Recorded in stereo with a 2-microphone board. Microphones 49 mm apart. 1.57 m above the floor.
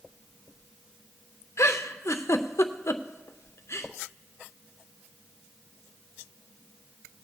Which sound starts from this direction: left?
A giggle, at 1.6 s.